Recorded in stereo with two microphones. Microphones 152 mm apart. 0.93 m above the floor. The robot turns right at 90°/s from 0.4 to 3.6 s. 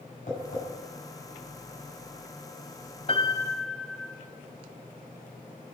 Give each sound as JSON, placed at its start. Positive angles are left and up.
{"t": 0.3, "sound": "tapping", "side_deg": 55, "distance_m": 7.0}
{"t": 3.1, "sound": "a piano", "azimuth_deg": 135, "distance_m": 1.6}